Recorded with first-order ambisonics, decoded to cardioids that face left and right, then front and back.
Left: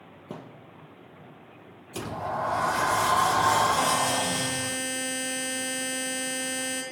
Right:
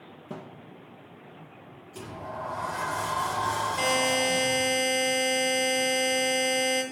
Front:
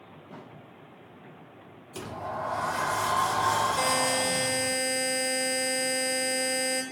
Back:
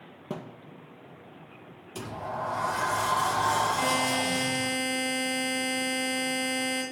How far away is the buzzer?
About 6 m.